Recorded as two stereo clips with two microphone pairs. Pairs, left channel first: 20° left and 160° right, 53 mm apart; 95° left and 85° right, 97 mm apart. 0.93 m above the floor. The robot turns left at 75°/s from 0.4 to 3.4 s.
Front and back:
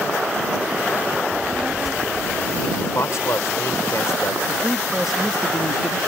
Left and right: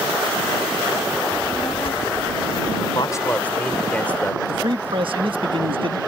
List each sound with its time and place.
1.3 s a child speaking: 155° left; by 2.9 s 40° left
3.0 s a man speaking: 55° left; by 4.4 s 20° left
4.5 s a man speaking: 75° right